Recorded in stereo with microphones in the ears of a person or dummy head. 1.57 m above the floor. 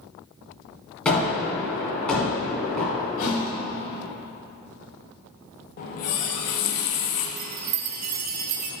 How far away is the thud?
About 3 m.